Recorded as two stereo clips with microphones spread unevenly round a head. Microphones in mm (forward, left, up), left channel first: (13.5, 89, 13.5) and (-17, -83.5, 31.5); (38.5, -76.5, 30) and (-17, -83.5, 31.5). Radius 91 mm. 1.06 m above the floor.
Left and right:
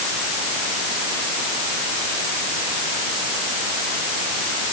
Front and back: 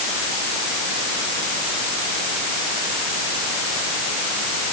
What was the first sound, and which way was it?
Only background noise.